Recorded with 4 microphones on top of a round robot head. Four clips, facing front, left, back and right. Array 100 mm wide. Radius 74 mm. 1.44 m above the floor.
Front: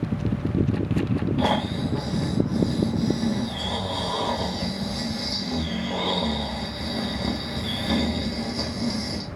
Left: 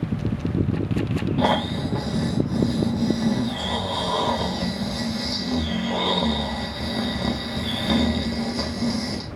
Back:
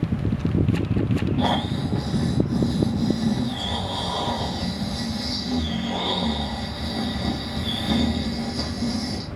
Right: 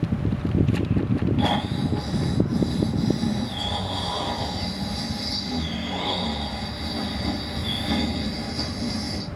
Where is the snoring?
80° left, 0.8 m.